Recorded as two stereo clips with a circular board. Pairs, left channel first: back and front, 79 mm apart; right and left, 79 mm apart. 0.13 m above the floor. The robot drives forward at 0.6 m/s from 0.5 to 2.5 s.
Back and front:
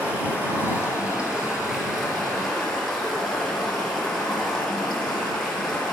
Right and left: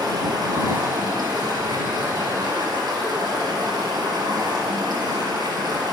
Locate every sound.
0.0 s running water: 70° left, 3 m; by 6.0 s 100° left, 2.5 m